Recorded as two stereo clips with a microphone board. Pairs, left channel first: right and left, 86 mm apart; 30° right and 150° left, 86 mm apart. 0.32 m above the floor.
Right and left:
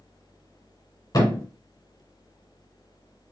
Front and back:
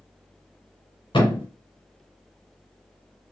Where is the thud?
50° right, 1.6 m.